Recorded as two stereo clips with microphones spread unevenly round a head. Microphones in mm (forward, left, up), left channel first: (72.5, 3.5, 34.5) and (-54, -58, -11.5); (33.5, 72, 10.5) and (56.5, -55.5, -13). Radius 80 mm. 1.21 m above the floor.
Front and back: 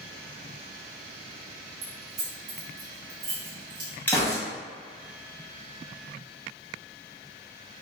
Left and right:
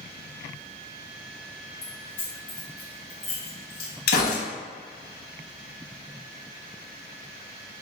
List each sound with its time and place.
1.8 s keys jangling: 160° left, 1.2 m
4.1 s a gunshot: 110° left, 1.0 m